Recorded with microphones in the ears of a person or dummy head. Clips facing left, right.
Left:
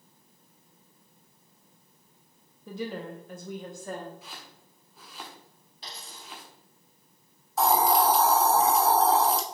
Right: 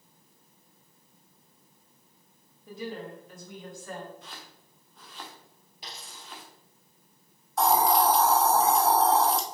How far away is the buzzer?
No buzzer in this recording.